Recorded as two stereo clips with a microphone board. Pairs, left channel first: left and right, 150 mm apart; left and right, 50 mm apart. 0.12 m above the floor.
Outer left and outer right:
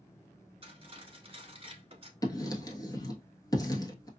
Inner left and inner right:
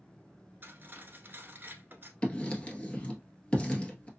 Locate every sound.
0.6 s cutlery clinking: 40° right (ahead or behind), 1.0 m
2.2 s writing: 25° left (ahead or behind), 1.1 m